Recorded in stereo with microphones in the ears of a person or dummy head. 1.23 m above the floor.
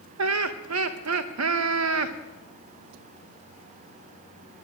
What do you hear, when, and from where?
0.2 s laughter: 75° right (ahead or behind), 0.9 m